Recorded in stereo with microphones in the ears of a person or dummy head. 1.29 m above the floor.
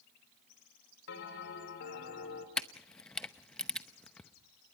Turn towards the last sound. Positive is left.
turn(degrees=5)  # may be behind; listen again after turning